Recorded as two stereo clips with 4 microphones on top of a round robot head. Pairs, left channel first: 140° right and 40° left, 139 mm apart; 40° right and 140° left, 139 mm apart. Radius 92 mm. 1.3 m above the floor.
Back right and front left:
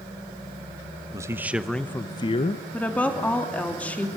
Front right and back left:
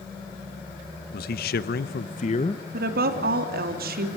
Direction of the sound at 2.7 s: 140° left.